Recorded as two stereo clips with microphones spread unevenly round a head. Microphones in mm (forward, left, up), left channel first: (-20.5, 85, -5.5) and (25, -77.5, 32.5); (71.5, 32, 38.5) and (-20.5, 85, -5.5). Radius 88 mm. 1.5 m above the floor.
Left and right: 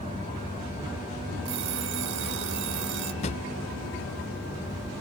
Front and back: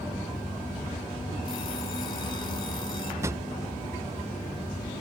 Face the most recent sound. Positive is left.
turn(degrees=65)